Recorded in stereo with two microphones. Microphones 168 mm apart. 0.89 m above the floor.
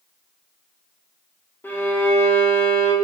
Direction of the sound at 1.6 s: 10° left (ahead or behind).